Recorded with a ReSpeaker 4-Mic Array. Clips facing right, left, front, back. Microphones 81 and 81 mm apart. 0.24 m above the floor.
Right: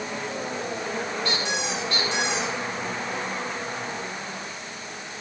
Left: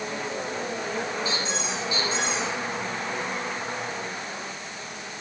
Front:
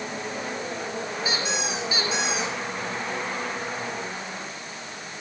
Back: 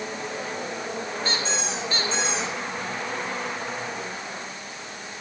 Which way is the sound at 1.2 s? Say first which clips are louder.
Right 1 dB, front 1 dB; 80° right.